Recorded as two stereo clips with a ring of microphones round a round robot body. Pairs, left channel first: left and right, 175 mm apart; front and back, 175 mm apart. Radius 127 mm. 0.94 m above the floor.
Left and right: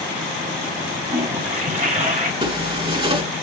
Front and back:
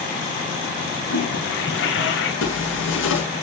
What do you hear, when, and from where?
1.1 s a toilet flushing: 40° right, 4.5 m
2.4 s a zipper: 30° right, 5.5 m